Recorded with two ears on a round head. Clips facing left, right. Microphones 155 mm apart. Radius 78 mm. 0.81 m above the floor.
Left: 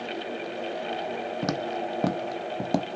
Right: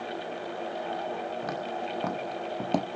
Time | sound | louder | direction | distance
1.4 | footsteps | left 4 dB | 55° left (ahead or behind) | 1.3 m